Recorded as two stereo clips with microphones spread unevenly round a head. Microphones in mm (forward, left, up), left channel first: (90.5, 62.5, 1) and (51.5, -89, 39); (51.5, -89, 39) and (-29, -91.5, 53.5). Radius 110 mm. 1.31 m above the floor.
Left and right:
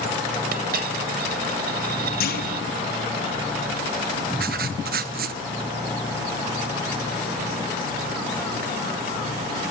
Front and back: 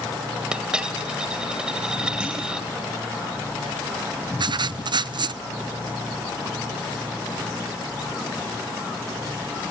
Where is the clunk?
100° left, 3 m.